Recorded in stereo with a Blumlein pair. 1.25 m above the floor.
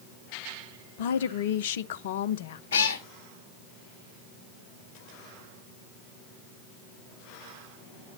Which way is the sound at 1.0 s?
55° left.